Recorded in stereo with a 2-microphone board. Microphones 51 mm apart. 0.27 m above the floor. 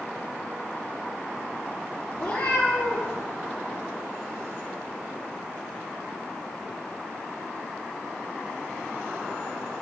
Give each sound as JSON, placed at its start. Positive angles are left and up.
{"t": 2.1, "sound": "a cat meowing", "side_deg": 55, "distance_m": 3.5}